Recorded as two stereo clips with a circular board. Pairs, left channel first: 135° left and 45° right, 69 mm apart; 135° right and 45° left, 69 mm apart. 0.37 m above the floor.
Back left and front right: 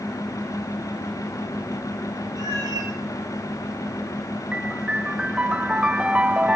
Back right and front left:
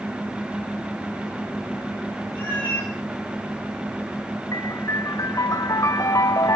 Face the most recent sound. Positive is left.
turn(degrees=-115)